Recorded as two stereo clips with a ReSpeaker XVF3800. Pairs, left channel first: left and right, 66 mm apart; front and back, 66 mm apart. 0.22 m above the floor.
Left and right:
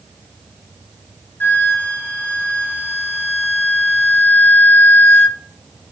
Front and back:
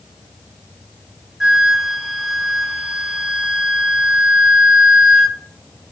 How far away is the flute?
About 0.5 m.